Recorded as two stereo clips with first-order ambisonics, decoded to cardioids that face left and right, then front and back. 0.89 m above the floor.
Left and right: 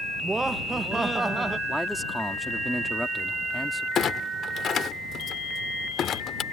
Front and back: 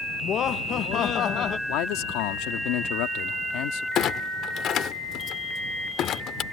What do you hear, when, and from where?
0.2 s laughter: 15° right
1.7 s a man speaking: straight ahead
4.0 s a clunk: 40° left